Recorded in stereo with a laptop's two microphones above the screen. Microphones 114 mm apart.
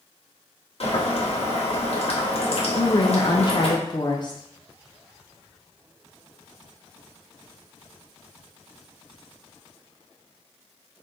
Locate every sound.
0.8 s boiling: 60° left (ahead or behind), 1.1 m
2.8 s a woman speaking: 40° left (ahead or behind), 0.5 m